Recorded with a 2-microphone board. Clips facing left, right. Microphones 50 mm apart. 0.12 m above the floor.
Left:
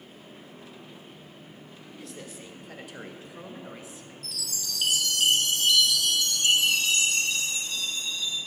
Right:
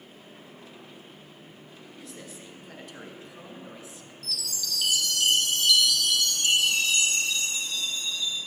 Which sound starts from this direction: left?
A chime, at 4.2 s.